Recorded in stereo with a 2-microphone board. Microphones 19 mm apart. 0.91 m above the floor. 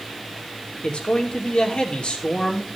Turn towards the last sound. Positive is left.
turn(degrees=75)  # may be behind; listen again after turning